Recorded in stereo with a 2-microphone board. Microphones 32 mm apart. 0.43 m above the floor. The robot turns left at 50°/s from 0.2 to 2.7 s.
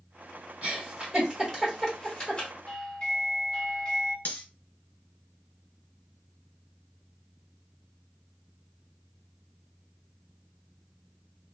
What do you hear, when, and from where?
0.6 s a giggle: 35° right (ahead or behind), 1.6 m; by 2.5 s 35° left (ahead or behind), 1.6 m
2.7 s a doorbell: 25° left (ahead or behind), 1.3 m; by 4.2 s 20° left (ahead or behind), 1.3 m
4.2 s cutlery clinking: 50° left (ahead or behind), 1.2 m